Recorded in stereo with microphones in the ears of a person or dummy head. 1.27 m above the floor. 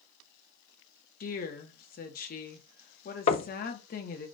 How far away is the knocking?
About 0.6 m.